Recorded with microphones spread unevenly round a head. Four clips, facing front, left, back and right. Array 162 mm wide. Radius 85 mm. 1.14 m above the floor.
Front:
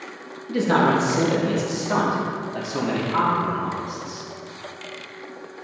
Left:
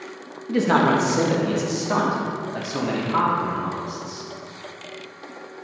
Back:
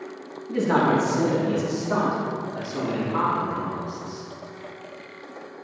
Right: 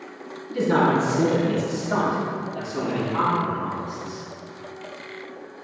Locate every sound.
0.5 s a man speaking: 75° left, 1.9 m; by 4.3 s 45° left, 4.5 m